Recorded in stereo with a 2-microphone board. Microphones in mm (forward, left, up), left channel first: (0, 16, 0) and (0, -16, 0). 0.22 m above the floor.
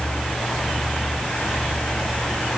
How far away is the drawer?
I don't hear a drawer.